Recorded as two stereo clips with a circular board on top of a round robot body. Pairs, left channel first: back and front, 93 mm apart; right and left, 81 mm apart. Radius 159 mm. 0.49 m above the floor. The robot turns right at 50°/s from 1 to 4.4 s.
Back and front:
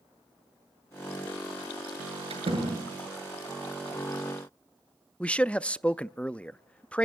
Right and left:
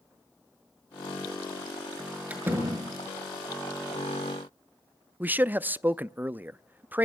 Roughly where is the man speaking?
Behind left.